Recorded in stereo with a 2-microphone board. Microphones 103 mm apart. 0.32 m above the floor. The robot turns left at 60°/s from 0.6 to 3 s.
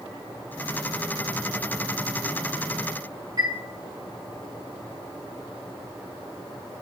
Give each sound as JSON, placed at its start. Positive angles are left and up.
{"t": 3.4, "sound": "a chime", "side_deg": -40, "distance_m": 3.0}